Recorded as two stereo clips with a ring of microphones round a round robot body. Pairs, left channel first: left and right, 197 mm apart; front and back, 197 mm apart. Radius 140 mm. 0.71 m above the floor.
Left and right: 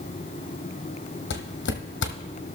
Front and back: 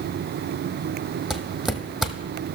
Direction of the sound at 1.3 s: 90° left.